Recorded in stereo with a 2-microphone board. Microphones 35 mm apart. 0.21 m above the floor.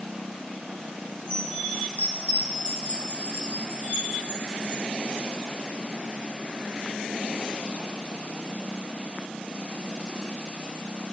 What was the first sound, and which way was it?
A chime, 40° right (ahead or behind).